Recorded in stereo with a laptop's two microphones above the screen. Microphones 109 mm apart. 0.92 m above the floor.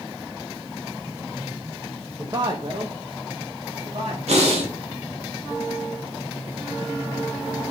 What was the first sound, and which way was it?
A man speaking, 30° right (ahead or behind).